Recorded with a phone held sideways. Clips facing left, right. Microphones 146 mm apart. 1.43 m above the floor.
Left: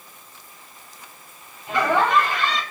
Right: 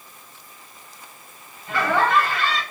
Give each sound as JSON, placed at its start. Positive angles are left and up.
{"t": 1.7, "sound": "laughter", "side_deg": 20, "distance_m": 3.5}